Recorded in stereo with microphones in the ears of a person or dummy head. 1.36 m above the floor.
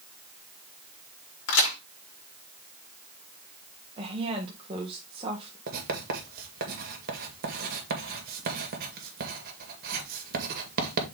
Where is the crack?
65° left (ahead or behind), 3 m.